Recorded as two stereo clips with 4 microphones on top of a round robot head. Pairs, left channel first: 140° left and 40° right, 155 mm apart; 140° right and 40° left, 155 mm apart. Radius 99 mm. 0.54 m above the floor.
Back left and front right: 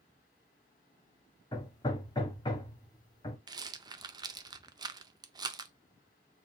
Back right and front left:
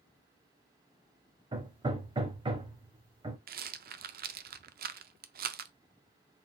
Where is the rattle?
25° left, 0.5 m.